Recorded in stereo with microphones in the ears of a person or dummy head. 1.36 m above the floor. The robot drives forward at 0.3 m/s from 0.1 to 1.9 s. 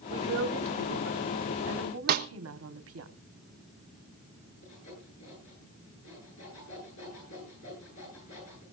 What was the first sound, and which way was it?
A woman speaking, 65° right (ahead or behind).